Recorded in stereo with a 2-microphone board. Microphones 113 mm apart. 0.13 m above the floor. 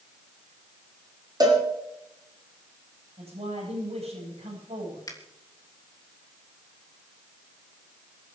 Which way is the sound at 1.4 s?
35° right (ahead or behind).